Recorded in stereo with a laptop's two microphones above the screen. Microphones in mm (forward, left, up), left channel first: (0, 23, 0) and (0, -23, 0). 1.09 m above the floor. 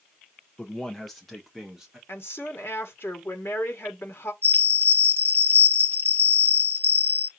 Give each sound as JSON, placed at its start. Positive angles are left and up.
{"t": 0.6, "sound": "a man speaking", "side_deg": 15, "distance_m": 1.1}
{"t": 2.1, "sound": "a woman speaking", "side_deg": 55, "distance_m": 1.8}
{"t": 4.4, "sound": "a bell", "side_deg": -55, "distance_m": 1.3}